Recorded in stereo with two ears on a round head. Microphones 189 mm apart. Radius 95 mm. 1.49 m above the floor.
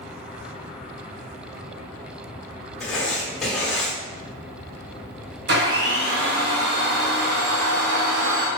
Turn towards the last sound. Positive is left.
turn(degrees=-55)  # may be behind; listen again after turning